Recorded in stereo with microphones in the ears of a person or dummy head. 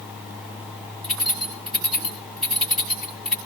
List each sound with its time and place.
1.0 s keys jangling: 5° left (ahead or behind), 6 m